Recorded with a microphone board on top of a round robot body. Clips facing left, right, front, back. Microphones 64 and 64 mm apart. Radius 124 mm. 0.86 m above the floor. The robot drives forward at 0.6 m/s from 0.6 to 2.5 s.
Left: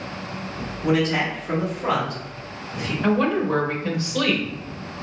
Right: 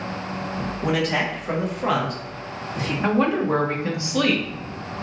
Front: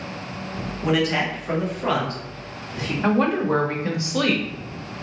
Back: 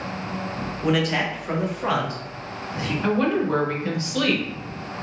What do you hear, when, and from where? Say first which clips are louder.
0.8 s a man speaking: left 2 dB, front 1 dB; 85° right, 1.6 m; by 2.9 s 120° right, 1.8 m
3.0 s a woman speaking: even, front 2 dB; 40° right, 0.8 m